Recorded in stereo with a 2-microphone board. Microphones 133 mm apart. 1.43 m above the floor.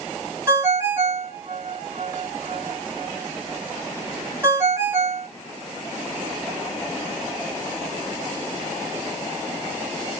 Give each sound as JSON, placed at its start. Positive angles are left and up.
{"t": 0.5, "sound": "a ringtone", "side_deg": -15, "distance_m": 1.2}